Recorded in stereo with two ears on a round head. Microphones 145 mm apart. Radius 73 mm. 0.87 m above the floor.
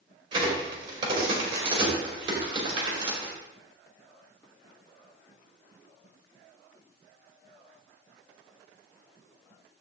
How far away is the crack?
About 2.5 m.